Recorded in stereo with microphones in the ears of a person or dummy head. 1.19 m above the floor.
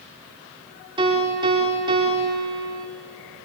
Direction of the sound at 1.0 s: 25° right (ahead or behind).